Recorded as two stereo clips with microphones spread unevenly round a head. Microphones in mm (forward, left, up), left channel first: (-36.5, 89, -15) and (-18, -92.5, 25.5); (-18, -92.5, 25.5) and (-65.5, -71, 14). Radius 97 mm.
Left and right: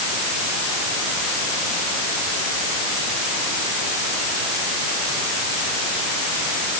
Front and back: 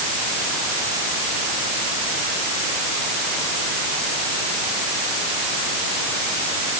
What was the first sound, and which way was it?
Only background noise.